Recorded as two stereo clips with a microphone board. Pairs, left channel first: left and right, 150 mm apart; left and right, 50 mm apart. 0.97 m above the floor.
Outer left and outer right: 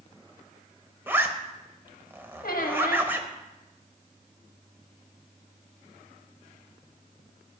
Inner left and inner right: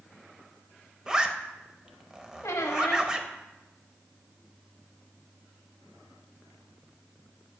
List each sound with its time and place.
1.1 s a zipper: 15° right (ahead or behind), 0.7 m
2.4 s a squeak: 85° left, 1.0 m